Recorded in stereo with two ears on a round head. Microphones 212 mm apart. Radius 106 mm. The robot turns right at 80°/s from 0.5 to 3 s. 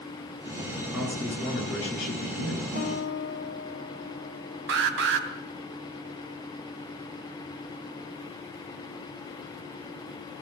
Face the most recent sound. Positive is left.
turn(degrees=-55)  # may be behind; listen again after turning